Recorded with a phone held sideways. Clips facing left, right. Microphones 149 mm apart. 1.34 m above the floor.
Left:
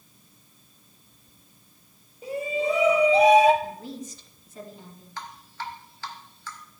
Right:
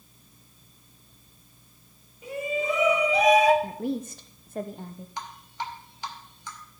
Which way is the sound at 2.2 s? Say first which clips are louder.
Left 2 dB; 35° left (ahead or behind).